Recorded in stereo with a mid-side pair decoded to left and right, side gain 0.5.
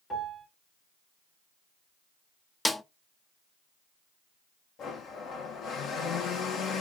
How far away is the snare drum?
About 0.5 m.